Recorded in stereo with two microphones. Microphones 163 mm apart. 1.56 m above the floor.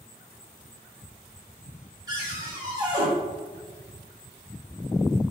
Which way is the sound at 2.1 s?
25° right (ahead or behind).